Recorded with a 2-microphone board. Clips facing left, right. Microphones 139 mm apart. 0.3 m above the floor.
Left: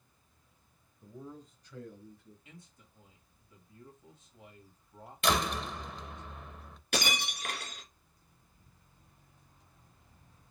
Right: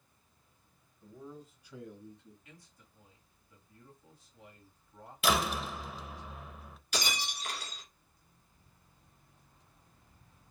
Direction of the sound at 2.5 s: 25° left (ahead or behind).